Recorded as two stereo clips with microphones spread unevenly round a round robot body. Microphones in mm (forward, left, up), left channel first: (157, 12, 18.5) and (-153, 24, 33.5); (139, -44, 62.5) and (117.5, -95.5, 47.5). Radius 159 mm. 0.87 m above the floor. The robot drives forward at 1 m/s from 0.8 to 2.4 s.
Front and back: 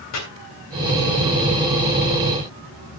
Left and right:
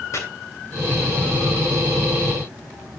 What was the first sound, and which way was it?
Chopping, 40° left.